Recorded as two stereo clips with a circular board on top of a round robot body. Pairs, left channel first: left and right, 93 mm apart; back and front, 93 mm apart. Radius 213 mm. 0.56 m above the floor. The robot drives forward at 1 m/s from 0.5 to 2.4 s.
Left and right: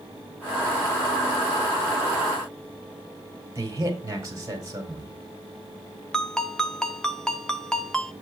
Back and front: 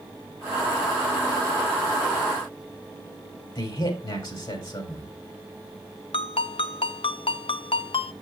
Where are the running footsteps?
I don't hear running footsteps.